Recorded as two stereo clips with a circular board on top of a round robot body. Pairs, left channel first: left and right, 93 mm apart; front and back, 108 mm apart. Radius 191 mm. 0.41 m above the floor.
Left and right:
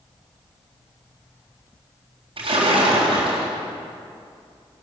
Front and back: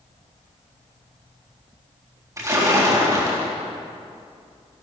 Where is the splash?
120° right, 4 m.